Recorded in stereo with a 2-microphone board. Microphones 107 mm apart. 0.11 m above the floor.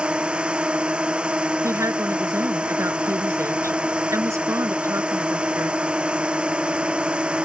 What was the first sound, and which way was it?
A drone, 10° right (ahead or behind).